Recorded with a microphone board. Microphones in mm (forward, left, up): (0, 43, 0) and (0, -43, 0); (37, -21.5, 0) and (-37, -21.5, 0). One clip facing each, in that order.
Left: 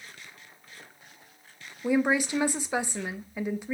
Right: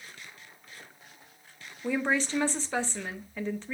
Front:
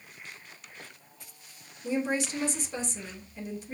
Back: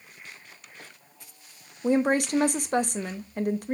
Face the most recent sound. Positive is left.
turn(degrees=170)